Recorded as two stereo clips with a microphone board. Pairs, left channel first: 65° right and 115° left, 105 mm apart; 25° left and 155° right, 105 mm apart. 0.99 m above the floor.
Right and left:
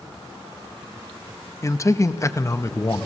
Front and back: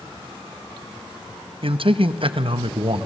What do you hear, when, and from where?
1.6 s a man speaking: 125° right, 0.7 m